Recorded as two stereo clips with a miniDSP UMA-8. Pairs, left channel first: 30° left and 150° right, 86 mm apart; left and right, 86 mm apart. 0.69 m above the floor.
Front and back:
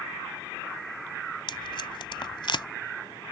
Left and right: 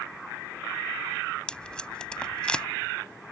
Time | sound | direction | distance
1.5 | tape being pulled | 10° left | ?